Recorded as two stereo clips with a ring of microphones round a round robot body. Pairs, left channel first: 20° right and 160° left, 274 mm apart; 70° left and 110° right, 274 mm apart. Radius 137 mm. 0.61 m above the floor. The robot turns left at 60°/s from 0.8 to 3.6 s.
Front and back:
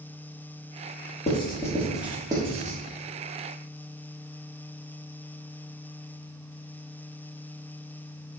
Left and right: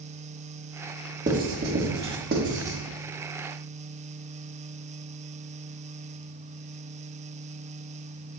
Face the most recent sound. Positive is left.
turn(degrees=145)